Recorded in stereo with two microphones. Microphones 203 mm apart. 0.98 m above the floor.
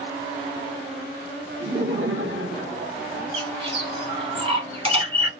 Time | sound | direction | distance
1.6 | laughter | 60° right (ahead or behind) | 0.8 m
3.3 | a bird | 25° right (ahead or behind) | 0.8 m